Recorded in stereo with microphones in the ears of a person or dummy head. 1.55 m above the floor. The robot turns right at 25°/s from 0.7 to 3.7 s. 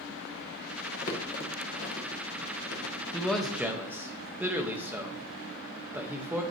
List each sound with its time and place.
0.9 s crumpling: 45° left (ahead or behind), 1.0 m; by 3.5 s 60° left (ahead or behind), 1.0 m
3.1 s a man speaking: 5° left (ahead or behind), 0.9 m; by 6.4 s 10° right (ahead or behind), 0.9 m